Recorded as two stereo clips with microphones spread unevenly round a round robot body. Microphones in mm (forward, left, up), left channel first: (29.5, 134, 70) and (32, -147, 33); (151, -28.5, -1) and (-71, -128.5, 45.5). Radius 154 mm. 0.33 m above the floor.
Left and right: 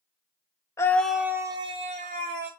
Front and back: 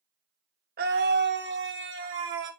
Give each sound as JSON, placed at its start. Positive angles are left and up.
{"t": 0.8, "sound": "a scream", "azimuth_deg": 175, "distance_m": 1.3}